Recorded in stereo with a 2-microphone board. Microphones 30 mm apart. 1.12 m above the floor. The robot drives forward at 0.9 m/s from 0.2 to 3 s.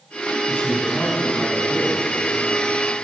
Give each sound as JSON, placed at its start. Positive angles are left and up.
{"t": 0.5, "sound": "a man speaking", "side_deg": 40, "distance_m": 6.5}